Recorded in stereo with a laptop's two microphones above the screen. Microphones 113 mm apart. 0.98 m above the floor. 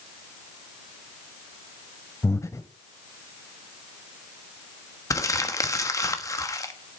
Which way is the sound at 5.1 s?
30° left (ahead or behind).